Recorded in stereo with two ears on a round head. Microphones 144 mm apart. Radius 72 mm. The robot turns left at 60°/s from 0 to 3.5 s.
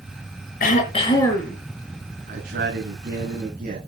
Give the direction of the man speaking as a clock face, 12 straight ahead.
2 o'clock.